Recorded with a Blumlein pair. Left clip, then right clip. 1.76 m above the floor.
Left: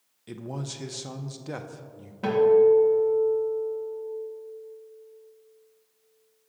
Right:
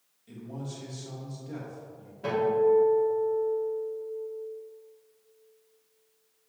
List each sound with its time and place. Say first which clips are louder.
0.3 s a man speaking: left 5 dB; 55° left, 0.7 m
2.2 s a guitar: left 6 dB; 45° left, 2 m